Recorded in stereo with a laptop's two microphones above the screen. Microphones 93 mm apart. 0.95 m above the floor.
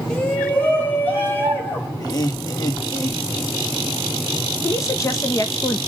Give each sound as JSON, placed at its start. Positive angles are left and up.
{"t": 0.1, "sound": "a shout", "side_deg": 10, "distance_m": 1.1}
{"t": 2.0, "sound": "laughter", "side_deg": 40, "distance_m": 1.6}
{"t": 4.6, "sound": "a woman speaking", "side_deg": 30, "distance_m": 0.8}